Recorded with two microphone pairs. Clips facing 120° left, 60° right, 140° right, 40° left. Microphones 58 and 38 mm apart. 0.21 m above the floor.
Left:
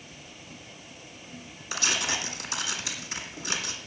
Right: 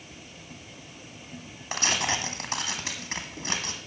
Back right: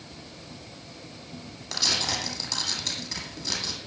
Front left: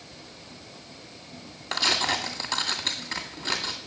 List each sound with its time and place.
1.7 s tearing paper: 15° right, 2 m